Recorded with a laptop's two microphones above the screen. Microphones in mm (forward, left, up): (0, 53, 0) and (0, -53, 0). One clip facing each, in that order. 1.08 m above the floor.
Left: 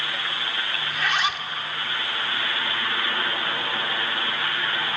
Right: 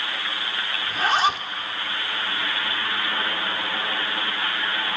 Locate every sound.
0.9 s a zipper: 35° right (ahead or behind), 1.7 m